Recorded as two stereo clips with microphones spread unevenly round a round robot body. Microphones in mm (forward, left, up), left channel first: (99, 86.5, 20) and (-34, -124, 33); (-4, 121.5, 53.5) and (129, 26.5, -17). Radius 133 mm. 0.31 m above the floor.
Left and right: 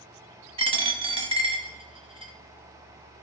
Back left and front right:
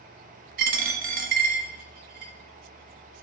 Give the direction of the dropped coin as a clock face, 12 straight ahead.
2 o'clock.